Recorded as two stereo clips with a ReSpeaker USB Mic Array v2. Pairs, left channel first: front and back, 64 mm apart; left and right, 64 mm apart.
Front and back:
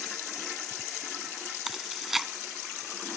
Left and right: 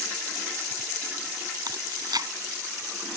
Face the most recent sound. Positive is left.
turn(degrees=-95)